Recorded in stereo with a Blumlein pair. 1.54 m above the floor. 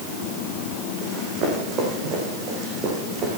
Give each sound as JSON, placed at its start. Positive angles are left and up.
{"t": 1.0, "sound": "running footsteps", "azimuth_deg": -30, "distance_m": 5.0}